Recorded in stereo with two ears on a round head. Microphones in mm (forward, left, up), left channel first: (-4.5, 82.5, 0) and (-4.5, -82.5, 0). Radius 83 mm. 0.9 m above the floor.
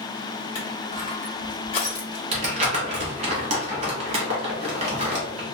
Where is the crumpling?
40° right (ahead or behind), 1.1 m.